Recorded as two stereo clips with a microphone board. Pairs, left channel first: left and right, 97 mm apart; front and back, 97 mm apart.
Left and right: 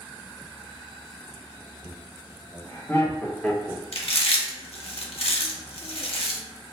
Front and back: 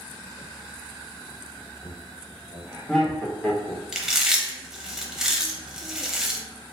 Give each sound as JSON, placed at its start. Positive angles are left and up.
{"t": 1.8, "sound": "laughter", "azimuth_deg": 105, "distance_m": 1.6}
{"t": 3.9, "sound": "chewing", "azimuth_deg": 95, "distance_m": 0.6}